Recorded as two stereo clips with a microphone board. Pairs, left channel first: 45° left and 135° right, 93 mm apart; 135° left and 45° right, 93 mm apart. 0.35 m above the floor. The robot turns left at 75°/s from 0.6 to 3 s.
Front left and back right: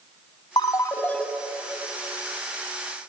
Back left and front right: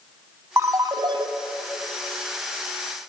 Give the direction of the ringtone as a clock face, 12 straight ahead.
12 o'clock.